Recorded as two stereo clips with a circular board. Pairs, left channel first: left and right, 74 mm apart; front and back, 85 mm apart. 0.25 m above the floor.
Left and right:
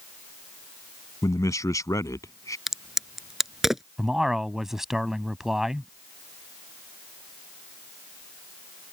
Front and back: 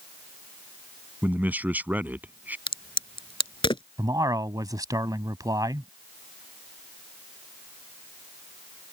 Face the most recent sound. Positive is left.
turn(degrees=-170)